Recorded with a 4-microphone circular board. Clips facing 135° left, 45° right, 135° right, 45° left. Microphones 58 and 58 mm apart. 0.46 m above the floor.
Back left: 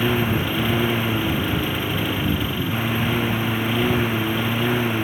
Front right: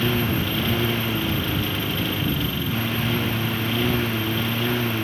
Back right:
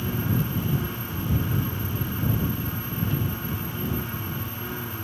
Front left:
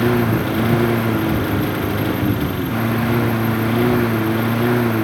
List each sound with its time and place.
0.0 s a lawn mower: 60° left